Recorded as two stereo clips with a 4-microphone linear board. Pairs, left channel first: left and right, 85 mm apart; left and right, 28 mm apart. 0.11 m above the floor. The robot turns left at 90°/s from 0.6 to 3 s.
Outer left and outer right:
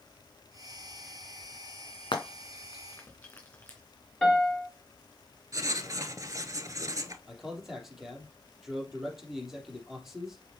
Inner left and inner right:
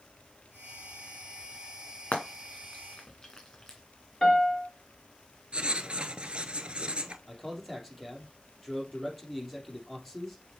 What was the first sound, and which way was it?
Frying, 75° left (ahead or behind).